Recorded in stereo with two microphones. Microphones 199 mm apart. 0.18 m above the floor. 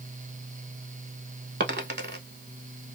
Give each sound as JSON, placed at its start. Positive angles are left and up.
{"t": 1.6, "sound": "a dropped coin", "side_deg": -60, "distance_m": 0.6}